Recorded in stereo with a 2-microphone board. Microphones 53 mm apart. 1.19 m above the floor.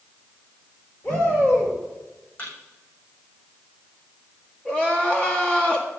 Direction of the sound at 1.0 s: 40° left (ahead or behind).